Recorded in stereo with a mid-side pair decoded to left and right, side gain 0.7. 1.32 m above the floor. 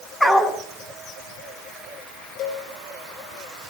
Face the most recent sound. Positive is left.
turn(degrees=55)